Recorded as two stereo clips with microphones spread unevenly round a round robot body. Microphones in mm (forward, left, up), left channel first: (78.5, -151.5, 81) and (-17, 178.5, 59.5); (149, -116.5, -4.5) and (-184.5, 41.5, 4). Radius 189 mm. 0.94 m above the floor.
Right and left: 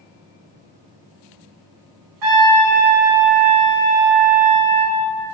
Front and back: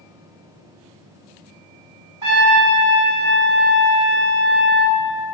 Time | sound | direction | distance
2.2 | a trumpet | 75° left | 2.5 m